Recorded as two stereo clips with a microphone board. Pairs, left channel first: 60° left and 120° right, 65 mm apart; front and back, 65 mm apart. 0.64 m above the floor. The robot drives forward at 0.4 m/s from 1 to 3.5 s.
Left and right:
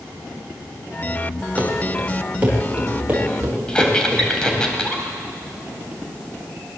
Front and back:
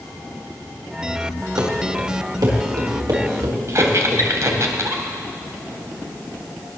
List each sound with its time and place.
1.6 s running footsteps: 170° left, 6 m; by 4.6 s 175° left, 8.5 m
3.7 s a squeak: 140° left, 2.5 m